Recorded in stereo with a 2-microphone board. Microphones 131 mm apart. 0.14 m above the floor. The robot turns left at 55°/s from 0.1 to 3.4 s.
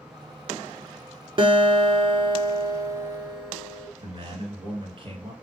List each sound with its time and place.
1.4 s a guitar: 65° right, 0.7 m; by 3.9 s 175° right, 0.7 m
4.0 s a man speaking: 40° right (ahead or behind), 1.7 m